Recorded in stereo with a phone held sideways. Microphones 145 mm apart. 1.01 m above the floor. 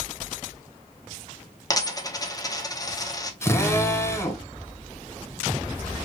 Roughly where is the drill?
Centre.